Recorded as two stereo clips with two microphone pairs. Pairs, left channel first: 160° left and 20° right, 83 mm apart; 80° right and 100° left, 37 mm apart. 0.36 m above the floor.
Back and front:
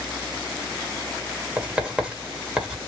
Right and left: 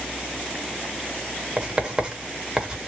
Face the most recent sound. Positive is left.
turn(degrees=50)